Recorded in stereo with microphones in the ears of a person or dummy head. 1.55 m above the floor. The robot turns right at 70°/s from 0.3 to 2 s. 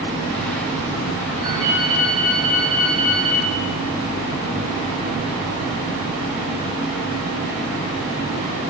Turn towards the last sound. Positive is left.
turn(degrees=-120)